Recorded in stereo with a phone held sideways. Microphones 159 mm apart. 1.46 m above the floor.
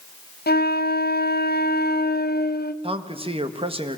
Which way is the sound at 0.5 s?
80° left.